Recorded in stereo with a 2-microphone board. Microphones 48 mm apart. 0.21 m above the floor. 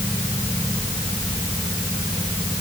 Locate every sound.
Only background noise.